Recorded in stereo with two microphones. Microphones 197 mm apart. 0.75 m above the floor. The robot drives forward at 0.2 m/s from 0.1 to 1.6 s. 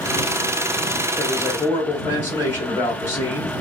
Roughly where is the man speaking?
Centre.